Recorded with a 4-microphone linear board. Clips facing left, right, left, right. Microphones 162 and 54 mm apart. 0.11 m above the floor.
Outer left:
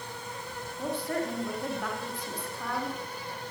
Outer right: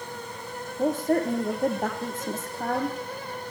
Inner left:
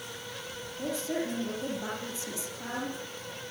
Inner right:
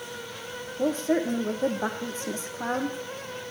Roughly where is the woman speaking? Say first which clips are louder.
Outer right 8 dB, inner right 8 dB; right.